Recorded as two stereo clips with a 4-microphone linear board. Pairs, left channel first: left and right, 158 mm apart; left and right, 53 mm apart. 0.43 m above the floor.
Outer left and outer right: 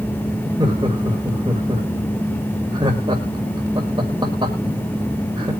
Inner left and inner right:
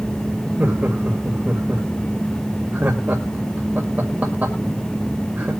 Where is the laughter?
30° right (ahead or behind), 1.9 m.